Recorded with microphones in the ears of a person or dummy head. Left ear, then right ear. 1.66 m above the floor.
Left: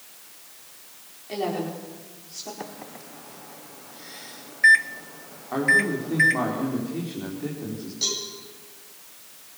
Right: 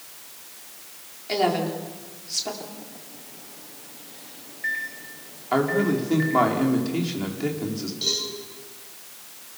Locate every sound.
1.3 s a woman speaking: 55° right (ahead or behind), 5.5 m
2.6 s a microwave: 60° left (ahead or behind), 0.8 m
5.5 s a man speaking: 85° right, 4.5 m
8.0 s a cowbell: 45° left (ahead or behind), 9 m